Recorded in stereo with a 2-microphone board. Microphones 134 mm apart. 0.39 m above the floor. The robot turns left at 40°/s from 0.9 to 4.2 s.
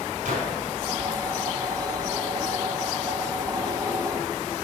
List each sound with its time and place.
0.2 s a gunshot: 65° right (ahead or behind), 4 m